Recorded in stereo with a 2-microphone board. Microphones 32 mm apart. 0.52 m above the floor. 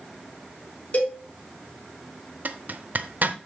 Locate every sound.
0.9 s a cowbell: 45° left (ahead or behind), 4 m
2.5 s a zipper: 55° right (ahead or behind), 0.7 m